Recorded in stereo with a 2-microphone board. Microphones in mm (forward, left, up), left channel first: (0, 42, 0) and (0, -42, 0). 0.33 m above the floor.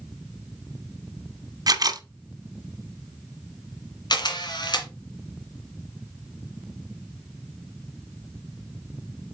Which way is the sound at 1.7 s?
50° right (ahead or behind).